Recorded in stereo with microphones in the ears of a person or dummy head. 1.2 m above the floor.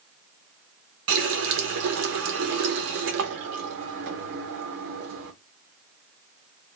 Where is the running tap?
70° right (ahead or behind), 0.6 m.